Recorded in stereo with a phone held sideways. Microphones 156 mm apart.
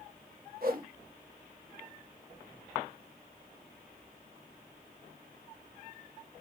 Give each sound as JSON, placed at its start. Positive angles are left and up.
{"t": 0.6, "sound": "a whoosh", "side_deg": -65, "distance_m": 0.9}